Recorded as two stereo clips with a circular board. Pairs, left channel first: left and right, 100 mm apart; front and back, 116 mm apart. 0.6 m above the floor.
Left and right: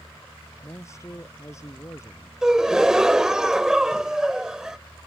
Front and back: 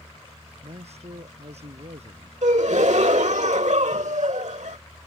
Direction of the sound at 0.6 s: 150° left.